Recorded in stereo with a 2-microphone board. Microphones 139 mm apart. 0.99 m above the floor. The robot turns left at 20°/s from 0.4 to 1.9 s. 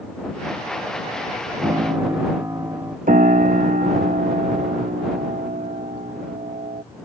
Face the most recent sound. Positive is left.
turn(degrees=-70)  # may be behind; listen again after turning